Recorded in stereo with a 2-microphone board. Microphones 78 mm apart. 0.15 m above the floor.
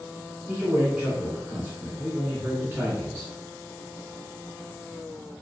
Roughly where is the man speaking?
Right.